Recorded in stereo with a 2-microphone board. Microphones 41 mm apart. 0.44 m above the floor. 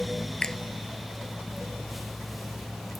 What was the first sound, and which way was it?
A finger snap, 20° left (ahead or behind).